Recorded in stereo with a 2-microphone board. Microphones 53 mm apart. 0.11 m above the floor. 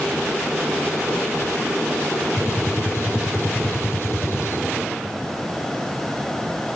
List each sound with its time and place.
2.4 s a gunshot: 55° left (ahead or behind), 2 m